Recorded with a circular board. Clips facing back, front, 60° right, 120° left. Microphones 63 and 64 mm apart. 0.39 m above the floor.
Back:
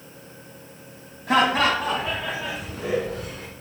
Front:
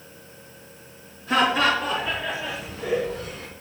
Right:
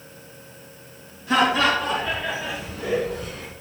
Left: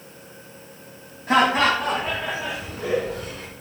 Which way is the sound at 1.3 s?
160° left.